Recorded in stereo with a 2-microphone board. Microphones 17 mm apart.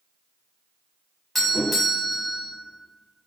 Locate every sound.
1.4 s a doorbell: 10° left (ahead or behind), 0.9 m